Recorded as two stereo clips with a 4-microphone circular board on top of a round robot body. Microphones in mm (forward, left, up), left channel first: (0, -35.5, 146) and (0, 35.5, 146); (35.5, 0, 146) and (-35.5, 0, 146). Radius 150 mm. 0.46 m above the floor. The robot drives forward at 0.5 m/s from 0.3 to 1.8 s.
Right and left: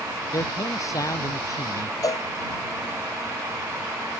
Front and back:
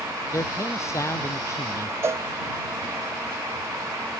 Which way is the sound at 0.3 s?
50° right.